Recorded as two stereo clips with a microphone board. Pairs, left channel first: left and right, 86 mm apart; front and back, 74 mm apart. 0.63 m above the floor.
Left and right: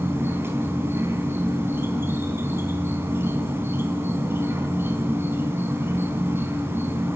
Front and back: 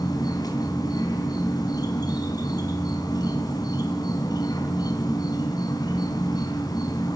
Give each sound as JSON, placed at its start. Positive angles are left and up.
{"t": 0.0, "sound": "an insect", "azimuth_deg": -25, "distance_m": 3.0}